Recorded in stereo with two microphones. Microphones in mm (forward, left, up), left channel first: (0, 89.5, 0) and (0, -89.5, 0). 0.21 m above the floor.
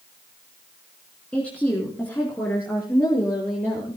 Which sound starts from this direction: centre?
A woman speaking, at 1.3 s.